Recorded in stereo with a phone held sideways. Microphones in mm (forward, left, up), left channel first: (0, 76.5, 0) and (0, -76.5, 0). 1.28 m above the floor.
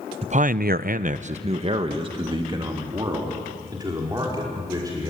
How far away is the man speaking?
About 0.6 m.